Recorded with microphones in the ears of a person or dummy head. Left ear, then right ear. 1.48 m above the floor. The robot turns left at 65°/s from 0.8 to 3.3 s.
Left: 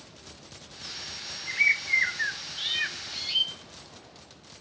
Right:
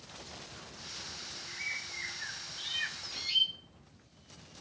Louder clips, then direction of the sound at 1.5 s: Left 16 dB; 120° left.